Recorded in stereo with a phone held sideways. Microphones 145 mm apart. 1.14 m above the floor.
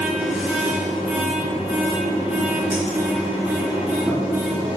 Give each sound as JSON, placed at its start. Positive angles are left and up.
{"t": 0.0, "sound": "a machine running", "side_deg": -5, "distance_m": 3.0}